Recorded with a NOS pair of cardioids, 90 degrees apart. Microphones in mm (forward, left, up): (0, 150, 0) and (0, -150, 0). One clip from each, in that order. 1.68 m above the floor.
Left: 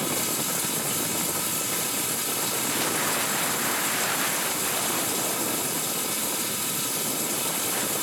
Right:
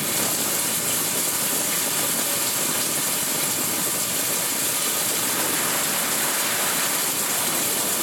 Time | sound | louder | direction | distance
0.0 | running water | right 3 dB | 50° right | 3 m